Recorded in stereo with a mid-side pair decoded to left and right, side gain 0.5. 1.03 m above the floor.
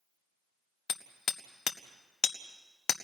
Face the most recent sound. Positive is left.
turn(degrees=50)